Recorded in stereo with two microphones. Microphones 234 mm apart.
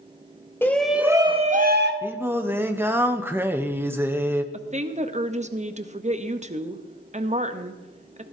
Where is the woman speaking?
30° right (ahead or behind), 0.8 m.